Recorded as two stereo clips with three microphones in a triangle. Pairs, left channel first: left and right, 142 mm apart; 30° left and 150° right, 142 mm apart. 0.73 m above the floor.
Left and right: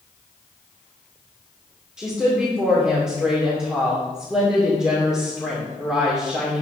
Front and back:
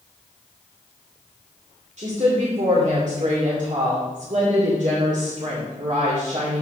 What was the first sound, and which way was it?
A woman speaking, 175° right.